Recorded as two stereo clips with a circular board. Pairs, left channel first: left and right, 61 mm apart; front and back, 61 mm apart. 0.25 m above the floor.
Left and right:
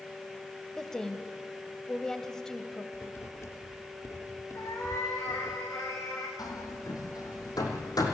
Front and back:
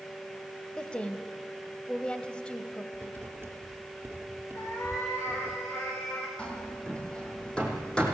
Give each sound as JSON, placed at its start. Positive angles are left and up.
{"t": 0.8, "sound": "a woman speaking", "azimuth_deg": 30, "distance_m": 1.2}
{"t": 2.9, "sound": "writing", "azimuth_deg": 130, "distance_m": 3.0}
{"t": 4.5, "sound": "a cat meowing", "azimuth_deg": 50, "distance_m": 6.0}
{"t": 6.4, "sound": "hammering", "azimuth_deg": 75, "distance_m": 4.0}